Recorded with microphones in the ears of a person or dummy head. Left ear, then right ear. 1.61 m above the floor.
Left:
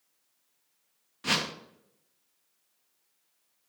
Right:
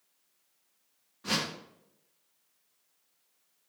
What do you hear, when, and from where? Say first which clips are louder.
1.2 s a whoosh: left 3 dB; 60° left (ahead or behind), 0.6 m